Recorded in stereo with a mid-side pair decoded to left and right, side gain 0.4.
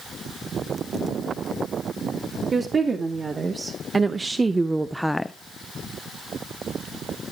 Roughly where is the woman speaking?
Ahead right.